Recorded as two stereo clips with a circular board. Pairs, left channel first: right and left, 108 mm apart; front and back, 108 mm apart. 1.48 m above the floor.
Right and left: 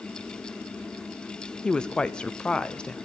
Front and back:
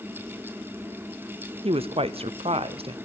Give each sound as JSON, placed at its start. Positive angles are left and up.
{"t": 1.6, "sound": "a woman speaking", "azimuth_deg": -170, "distance_m": 0.6}